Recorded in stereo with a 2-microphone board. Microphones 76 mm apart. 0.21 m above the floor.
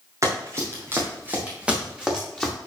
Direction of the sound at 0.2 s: 40° right (ahead or behind).